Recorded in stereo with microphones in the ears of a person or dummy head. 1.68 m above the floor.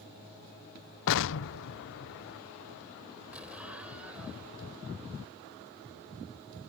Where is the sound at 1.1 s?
75° left (ahead or behind).